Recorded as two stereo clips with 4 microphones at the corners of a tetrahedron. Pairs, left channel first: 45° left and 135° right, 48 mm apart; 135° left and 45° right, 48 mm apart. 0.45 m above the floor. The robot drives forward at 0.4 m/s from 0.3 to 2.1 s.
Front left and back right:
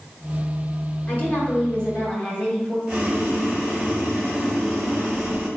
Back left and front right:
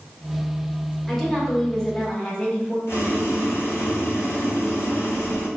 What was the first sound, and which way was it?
A woman speaking, 55° left.